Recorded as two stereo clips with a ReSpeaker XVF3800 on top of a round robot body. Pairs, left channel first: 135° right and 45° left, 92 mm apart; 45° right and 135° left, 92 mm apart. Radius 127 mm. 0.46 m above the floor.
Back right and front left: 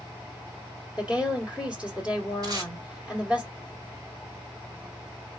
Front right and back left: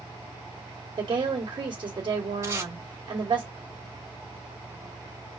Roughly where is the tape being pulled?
Left.